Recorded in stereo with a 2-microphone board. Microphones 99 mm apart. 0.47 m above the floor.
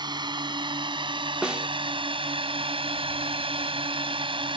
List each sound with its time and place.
0.0 s a drone: 50° right (ahead or behind); by 4.6 s 60° right (ahead or behind)
1.4 s a snare drum: 10° right (ahead or behind)